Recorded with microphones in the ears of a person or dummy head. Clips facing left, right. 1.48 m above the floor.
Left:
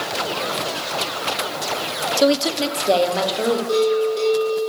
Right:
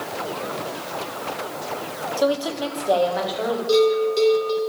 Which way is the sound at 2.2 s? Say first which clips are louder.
Left 4 dB; 30° left (ahead or behind).